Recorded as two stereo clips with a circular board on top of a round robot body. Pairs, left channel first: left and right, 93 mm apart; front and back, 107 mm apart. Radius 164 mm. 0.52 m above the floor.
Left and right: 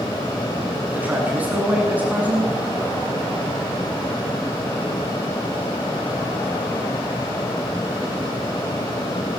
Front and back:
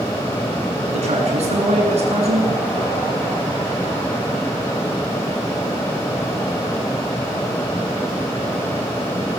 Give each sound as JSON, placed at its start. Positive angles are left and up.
{"t": 0.9, "sound": "a man speaking", "azimuth_deg": -165, "distance_m": 9.0}